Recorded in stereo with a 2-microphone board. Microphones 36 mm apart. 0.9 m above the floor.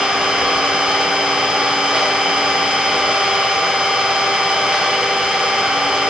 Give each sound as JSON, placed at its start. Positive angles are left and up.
{"t": 0.0, "sound": "an engine running", "side_deg": -20, "distance_m": 1.5}